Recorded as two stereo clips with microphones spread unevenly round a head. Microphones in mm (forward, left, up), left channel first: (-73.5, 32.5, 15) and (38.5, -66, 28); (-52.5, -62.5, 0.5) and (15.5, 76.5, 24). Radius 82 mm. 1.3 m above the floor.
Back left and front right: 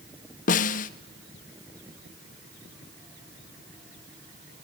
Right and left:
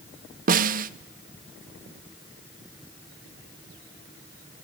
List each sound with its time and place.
0.5 s a snare drum: 100° left, 0.6 m